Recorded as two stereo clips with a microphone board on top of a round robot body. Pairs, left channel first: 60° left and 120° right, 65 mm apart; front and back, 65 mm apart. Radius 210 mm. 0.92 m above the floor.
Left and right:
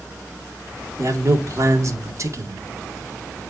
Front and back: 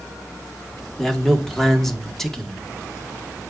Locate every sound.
1.0 s a man speaking: 85° right, 1.9 m